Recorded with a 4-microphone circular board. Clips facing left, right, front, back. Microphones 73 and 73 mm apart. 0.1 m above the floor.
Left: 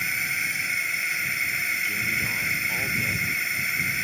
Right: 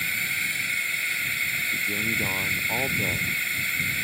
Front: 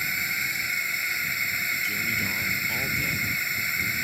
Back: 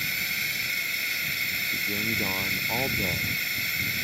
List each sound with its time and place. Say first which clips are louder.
0.0 s a drone: left 1 dB, front 2 dB; 25° left
1.7 s a man speaking: even, front 1 dB; 140° right